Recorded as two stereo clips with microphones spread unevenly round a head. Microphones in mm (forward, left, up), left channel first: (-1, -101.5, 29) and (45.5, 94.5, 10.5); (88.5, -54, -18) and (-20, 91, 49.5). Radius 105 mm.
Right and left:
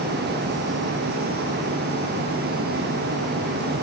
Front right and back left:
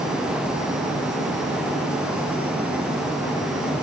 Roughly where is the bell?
I don't hear a bell.